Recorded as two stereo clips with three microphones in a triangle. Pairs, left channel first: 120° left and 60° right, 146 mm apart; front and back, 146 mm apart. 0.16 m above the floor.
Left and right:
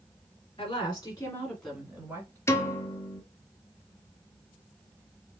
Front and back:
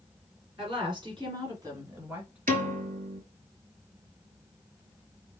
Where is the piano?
170° right, 0.8 m.